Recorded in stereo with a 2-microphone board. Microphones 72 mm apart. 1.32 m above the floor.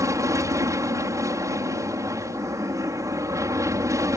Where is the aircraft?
50° right (ahead or behind).